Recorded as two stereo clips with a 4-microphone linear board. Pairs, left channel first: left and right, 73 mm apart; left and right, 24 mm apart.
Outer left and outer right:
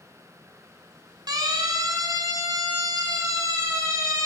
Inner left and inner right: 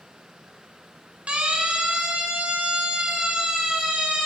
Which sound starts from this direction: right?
A siren, at 1.3 s.